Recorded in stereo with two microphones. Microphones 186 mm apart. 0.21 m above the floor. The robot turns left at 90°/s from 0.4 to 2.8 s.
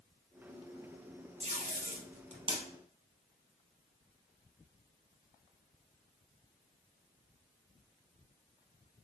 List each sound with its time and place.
1.4 s tape being pulled: 40° right (ahead or behind), 1.1 m; by 2.6 s 20° right (ahead or behind), 1.1 m